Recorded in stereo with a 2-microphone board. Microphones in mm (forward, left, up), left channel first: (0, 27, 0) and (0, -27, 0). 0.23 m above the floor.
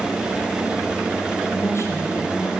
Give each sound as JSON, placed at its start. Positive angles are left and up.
{"t": 1.5, "sound": "a woman speaking", "side_deg": 55, "distance_m": 8.0}